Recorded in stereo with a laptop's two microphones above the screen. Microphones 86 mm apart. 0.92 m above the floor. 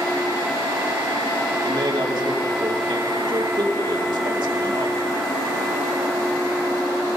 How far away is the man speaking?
About 2.5 m.